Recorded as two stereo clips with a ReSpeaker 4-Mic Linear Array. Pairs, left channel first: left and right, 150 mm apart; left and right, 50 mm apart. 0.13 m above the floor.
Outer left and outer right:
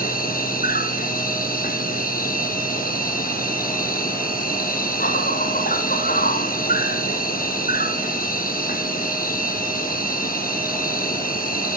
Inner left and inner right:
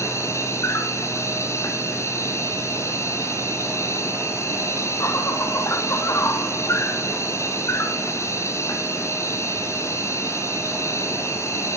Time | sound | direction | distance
0.0 | an insect | 65° left (ahead or behind) | 1.4 m